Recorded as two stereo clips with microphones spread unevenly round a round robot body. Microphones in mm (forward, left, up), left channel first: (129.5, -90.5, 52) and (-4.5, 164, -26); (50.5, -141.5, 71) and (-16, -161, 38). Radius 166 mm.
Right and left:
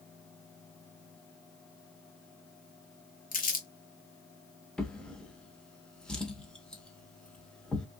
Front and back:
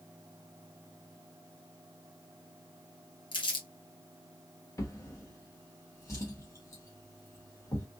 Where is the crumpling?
5° left, 1.2 m.